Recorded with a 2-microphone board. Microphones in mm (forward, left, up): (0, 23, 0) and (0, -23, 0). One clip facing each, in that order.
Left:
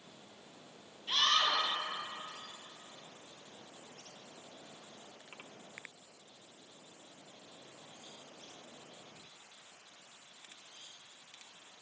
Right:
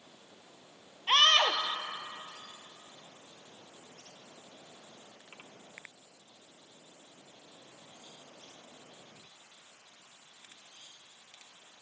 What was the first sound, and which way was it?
A scream, 60° right (ahead or behind).